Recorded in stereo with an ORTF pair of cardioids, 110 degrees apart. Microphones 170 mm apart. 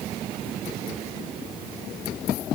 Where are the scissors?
No scissors in this recording.